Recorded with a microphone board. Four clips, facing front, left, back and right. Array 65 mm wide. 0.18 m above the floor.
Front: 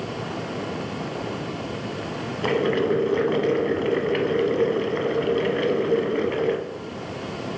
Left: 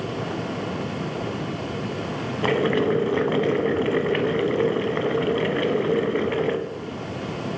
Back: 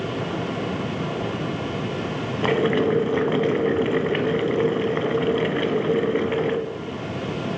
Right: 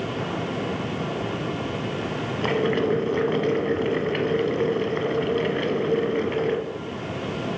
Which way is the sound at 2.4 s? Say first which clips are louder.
Left 2 dB, back 1 dB; 135° left.